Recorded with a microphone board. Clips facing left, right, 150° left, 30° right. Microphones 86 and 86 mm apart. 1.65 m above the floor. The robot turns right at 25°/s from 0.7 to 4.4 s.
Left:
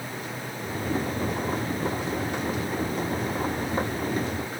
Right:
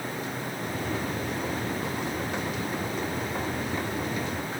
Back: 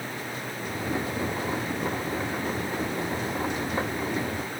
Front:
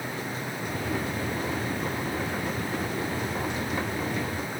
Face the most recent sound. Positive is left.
No sound to turn to.